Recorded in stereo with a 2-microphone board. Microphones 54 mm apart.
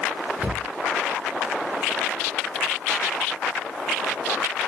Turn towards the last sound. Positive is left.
turn(degrees=-30)  # may be behind; listen again after turning